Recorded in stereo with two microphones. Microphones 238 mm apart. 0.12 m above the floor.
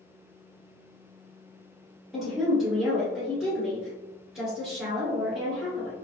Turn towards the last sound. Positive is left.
turn(degrees=0)  # may be behind; listen again after turning